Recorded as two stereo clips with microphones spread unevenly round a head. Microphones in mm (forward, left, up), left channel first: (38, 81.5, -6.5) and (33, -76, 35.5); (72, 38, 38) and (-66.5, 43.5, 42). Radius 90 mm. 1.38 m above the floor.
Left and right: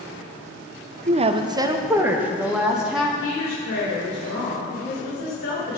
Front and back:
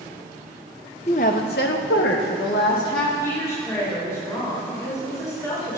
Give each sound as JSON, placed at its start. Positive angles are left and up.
{"t": 1.1, "sound": "a woman speaking", "azimuth_deg": -60, "distance_m": 0.5}
{"t": 3.2, "sound": "a woman speaking", "azimuth_deg": 65, "distance_m": 3.0}